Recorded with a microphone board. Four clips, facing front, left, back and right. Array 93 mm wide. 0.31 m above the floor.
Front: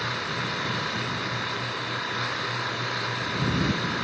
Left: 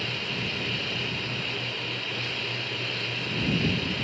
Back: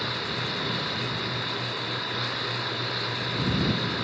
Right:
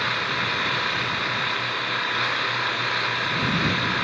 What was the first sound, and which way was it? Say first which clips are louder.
An engine running: right 8 dB, front 2 dB; 80° right.